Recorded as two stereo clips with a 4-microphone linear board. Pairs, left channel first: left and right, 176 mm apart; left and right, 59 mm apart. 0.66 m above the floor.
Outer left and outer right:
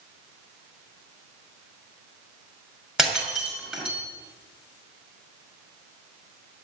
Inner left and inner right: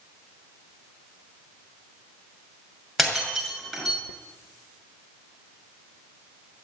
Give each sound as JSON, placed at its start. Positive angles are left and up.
{"t": 3.0, "sound": "breaking glass", "side_deg": -5, "distance_m": 5.5}